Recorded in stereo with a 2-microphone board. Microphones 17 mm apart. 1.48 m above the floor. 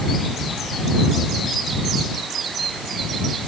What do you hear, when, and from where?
Only background noise.